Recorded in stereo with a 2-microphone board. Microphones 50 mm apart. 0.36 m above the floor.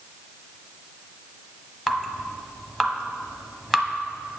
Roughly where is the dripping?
Centre.